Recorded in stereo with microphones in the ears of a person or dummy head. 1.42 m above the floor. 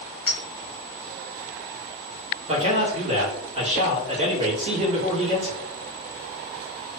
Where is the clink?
10° left (ahead or behind), 1.1 m.